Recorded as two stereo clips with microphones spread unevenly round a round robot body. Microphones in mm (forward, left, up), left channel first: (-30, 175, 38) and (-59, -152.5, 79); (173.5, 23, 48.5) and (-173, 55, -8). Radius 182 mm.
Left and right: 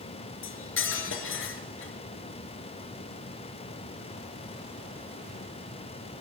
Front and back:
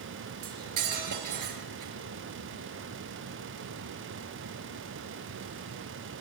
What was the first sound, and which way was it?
Cutlery clinking, 140° left.